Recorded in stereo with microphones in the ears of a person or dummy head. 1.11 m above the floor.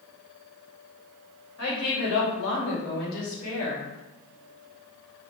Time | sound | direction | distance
1.6 | a woman speaking | 75° left (ahead or behind) | 1.3 m